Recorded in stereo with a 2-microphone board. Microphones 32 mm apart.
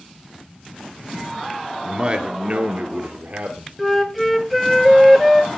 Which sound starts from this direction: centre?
A flute, at 3.8 s.